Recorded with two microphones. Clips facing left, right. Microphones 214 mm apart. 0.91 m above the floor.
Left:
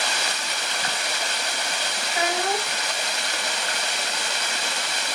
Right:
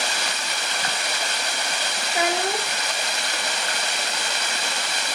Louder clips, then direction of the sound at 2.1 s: Right 1 dB; 35° right (ahead or behind).